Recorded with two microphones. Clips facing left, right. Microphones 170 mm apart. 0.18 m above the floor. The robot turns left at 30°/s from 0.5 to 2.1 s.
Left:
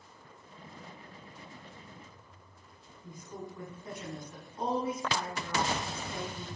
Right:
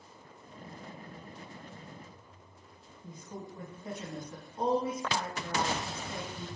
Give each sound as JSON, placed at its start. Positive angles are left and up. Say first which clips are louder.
{"t": 3.0, "sound": "a woman speaking", "louder": "even", "side_deg": -25, "distance_m": 1.1}